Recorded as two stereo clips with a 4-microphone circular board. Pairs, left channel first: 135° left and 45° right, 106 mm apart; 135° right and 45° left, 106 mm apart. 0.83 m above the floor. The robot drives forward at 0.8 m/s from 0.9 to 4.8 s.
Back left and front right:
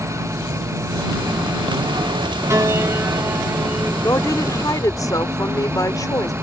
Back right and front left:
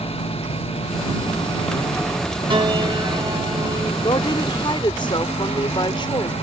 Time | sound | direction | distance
0.0 | an engine running | 110° right | ?
2.5 | a piano | 15° left | ?
4.0 | a woman speaking | 170° right | ?